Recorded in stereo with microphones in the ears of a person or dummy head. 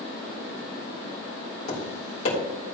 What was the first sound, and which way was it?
Tapping, 40° left (ahead or behind).